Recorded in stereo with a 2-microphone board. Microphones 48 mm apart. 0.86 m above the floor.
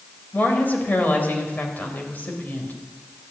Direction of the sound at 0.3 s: 40° left (ahead or behind).